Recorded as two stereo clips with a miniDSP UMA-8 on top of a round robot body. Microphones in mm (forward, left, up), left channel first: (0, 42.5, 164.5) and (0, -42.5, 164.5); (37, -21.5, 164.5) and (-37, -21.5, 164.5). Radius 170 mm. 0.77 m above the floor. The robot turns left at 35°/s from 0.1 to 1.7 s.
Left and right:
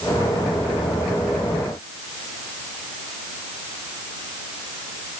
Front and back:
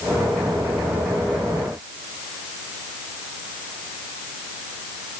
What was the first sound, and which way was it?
Only background noise.